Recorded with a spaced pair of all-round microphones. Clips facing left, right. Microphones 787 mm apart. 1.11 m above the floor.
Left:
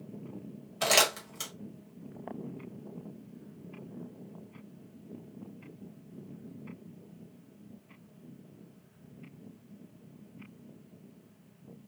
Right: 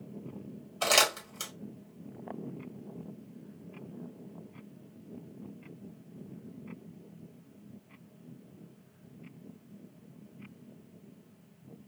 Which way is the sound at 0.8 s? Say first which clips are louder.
Left 1 dB; 55° left (ahead or behind).